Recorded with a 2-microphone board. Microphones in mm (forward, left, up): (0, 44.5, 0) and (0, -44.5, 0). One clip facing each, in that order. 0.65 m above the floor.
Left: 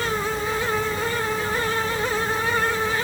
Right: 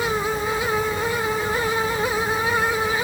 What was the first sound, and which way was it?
Only background noise.